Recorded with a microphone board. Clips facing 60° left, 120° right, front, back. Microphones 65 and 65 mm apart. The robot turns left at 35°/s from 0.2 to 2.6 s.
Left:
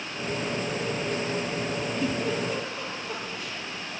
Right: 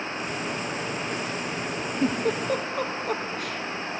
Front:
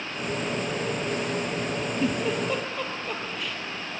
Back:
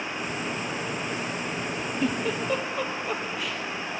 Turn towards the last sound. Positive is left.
turn(degrees=-95)